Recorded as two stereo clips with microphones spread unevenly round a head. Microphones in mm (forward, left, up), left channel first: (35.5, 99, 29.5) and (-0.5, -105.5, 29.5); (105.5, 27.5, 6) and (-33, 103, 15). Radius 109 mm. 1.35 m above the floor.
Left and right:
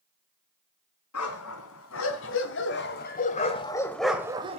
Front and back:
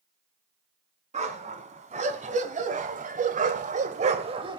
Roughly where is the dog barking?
Left.